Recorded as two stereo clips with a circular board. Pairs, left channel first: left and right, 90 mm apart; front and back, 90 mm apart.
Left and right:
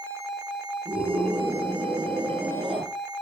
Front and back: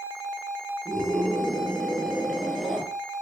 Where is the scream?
85° right, 8 m; by 2.9 s 90° right, 8.5 m.